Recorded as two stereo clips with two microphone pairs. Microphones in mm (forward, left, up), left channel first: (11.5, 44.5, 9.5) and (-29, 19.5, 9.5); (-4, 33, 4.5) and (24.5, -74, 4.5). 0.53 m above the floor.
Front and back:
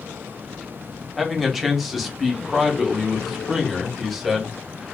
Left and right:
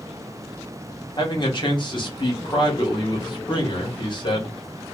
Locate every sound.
1.2 s a man speaking: 125° left, 1.1 m